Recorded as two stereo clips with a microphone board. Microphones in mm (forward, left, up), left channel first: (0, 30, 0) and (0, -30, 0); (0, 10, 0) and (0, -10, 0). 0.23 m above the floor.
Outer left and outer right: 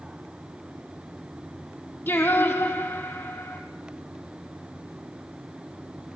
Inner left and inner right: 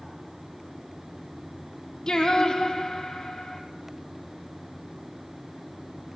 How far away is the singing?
About 3 m.